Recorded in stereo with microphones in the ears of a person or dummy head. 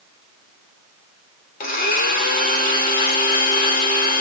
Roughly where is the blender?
Left.